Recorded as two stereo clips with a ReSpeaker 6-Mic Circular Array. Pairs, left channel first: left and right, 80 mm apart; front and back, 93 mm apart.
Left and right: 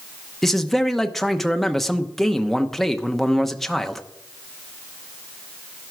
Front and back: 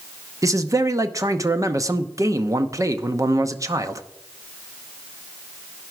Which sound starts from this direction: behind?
A man speaking, at 0.4 s.